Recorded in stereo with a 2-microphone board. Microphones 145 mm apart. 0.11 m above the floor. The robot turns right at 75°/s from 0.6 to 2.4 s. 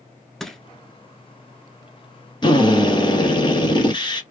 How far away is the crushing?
About 0.8 m.